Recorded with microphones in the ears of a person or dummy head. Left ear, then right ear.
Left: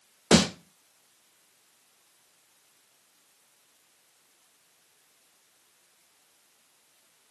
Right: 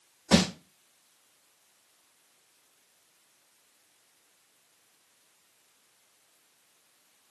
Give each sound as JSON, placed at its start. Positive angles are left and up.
{"t": 0.3, "sound": "a snare drum", "side_deg": 40, "distance_m": 1.7}